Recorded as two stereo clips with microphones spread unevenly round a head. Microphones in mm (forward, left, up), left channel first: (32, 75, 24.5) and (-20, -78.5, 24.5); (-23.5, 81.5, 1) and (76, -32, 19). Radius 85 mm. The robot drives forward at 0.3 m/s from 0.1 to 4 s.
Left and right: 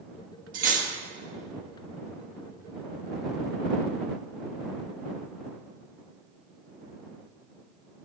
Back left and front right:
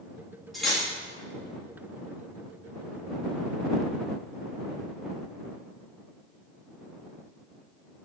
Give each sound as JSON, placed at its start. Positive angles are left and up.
{"t": 0.5, "sound": "cutlery clinking", "azimuth_deg": -135, "distance_m": 1.3}